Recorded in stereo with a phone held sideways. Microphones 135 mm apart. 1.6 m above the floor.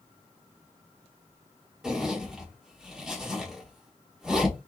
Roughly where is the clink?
No clink in this recording.